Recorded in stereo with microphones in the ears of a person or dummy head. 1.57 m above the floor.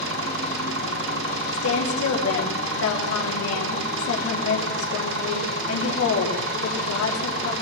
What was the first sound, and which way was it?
An engine running, 65° right (ahead or behind).